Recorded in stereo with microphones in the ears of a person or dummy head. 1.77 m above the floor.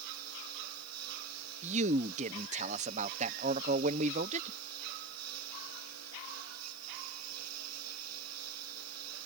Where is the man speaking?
35° right (ahead or behind).